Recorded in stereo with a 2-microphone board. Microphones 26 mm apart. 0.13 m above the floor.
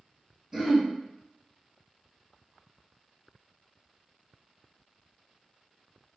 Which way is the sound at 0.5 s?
15° right (ahead or behind).